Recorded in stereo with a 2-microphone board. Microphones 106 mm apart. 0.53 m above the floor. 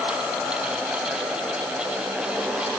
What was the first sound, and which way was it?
Only background noise.